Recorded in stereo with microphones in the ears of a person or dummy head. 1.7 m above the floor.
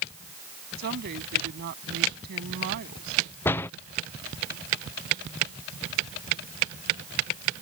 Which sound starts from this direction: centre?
A door slam, at 3.5 s.